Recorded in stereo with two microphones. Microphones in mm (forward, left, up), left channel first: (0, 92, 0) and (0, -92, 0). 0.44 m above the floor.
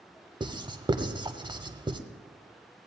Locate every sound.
0.4 s writing: 25° right (ahead or behind), 0.7 m